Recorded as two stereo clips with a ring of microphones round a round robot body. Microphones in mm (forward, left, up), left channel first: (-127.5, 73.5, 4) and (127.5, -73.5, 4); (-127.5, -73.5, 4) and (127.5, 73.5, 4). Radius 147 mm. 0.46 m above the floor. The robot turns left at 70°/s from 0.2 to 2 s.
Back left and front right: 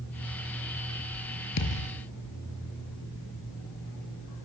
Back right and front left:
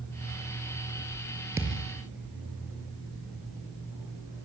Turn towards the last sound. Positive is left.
turn(degrees=80)